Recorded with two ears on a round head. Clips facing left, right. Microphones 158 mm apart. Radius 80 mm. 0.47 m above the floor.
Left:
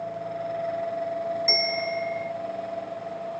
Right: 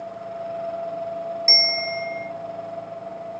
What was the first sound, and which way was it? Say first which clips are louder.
A bell: even; 10° right (ahead or behind).